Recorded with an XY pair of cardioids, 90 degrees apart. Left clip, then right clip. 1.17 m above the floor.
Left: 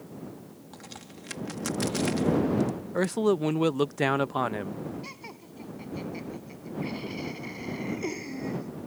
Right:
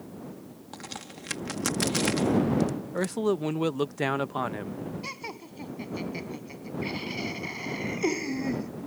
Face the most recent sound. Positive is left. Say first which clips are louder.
# right 5 dB
turn(degrees=-40)